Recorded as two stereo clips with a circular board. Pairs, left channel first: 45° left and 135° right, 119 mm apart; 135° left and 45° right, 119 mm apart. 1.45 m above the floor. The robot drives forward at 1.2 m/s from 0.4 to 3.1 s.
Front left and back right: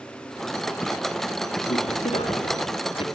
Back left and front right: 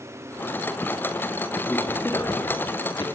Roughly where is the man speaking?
Ahead left.